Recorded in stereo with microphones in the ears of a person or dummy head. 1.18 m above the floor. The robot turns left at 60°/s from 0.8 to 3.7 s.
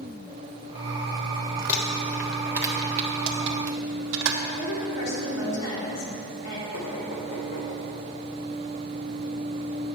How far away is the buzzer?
No buzzer in this recording.